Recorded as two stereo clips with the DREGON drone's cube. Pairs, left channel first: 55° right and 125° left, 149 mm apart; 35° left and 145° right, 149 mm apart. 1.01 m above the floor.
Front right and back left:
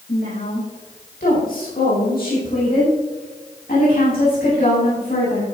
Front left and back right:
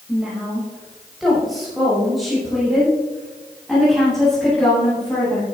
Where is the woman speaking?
60° right, 6 m; by 5.5 s 50° right, 9.5 m.